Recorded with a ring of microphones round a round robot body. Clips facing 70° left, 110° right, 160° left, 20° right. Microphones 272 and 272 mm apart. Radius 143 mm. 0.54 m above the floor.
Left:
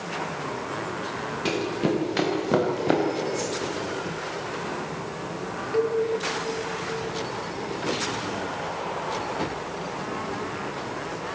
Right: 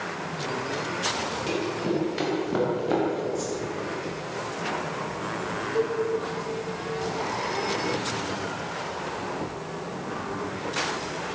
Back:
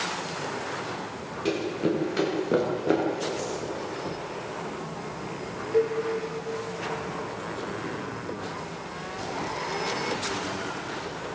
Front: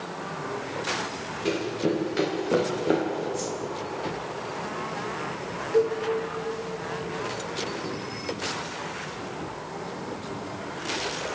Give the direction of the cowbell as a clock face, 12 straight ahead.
10 o'clock.